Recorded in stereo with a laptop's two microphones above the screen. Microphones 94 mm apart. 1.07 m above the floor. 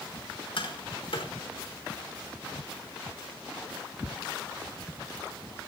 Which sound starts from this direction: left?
Tapping, at 0.6 s.